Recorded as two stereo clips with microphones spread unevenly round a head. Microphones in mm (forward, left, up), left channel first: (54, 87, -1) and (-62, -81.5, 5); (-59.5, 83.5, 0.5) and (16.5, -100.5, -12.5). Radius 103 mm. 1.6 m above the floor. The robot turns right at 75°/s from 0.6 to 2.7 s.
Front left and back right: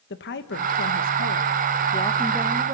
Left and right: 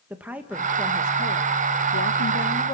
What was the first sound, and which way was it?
A woman speaking, 15° left.